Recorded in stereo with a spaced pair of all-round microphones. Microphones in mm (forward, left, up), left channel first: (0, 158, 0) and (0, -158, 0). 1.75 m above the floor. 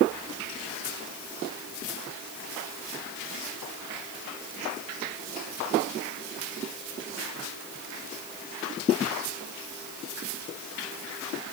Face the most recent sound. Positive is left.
No sound to turn to.